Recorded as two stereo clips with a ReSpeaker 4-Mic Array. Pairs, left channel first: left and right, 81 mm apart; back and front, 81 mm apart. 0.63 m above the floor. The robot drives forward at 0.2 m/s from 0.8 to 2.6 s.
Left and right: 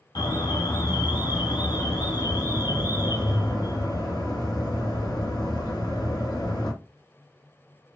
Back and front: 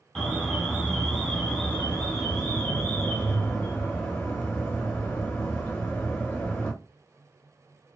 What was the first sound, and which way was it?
An alarm, 100° left.